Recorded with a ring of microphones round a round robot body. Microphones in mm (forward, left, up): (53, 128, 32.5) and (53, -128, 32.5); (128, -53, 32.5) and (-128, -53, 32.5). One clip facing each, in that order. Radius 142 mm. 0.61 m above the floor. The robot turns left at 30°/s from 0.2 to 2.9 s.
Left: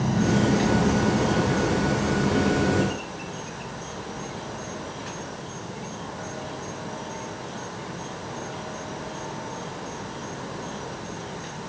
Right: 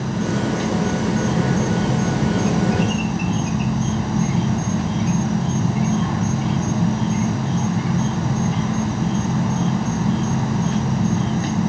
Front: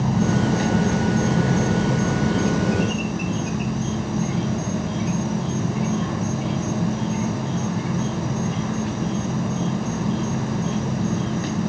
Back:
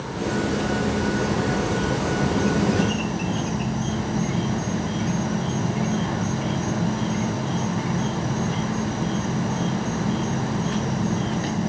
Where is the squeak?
I don't hear a squeak.